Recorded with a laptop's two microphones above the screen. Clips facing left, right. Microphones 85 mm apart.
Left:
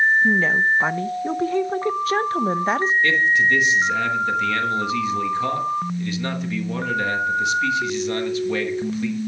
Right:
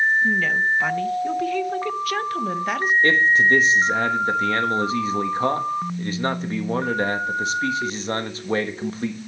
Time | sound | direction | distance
0.2 | a woman speaking | 30° left (ahead or behind) | 0.6 m
3.0 | a man speaking | 35° right (ahead or behind) | 1.2 m